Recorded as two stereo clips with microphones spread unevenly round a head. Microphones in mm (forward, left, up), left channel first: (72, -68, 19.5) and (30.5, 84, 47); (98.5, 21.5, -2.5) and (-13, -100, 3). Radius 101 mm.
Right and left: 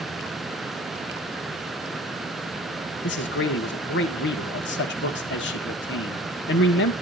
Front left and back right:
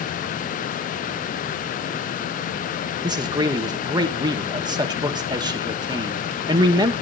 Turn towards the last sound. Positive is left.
turn(degrees=-65)